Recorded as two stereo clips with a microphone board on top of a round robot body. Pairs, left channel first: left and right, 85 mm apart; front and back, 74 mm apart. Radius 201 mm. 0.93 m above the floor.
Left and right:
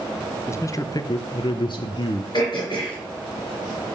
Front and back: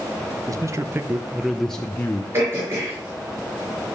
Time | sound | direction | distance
0.5 | a man speaking | 145° left | 1.0 m
2.3 | throat clearing | 125° left | 5.5 m